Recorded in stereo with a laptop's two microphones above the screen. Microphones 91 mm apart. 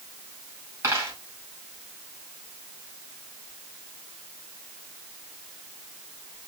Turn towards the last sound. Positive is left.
turn(degrees=-30)  # may be behind; listen again after turning